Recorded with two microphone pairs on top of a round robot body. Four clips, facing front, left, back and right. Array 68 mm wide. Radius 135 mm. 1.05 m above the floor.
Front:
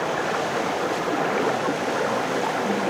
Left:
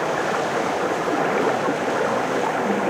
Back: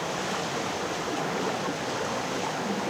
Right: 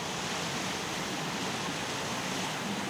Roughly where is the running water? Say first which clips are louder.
Left 14 dB, front 6 dB; ahead left.